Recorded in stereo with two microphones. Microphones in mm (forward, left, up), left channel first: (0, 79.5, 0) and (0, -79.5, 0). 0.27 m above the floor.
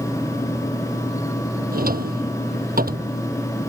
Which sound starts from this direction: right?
A drawer, at 1.7 s.